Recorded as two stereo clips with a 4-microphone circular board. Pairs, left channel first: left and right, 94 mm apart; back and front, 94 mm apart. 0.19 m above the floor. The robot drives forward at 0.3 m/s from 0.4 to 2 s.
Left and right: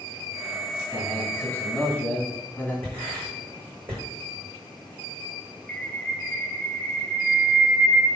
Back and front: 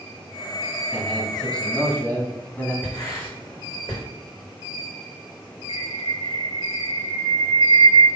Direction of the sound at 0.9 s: 90° left.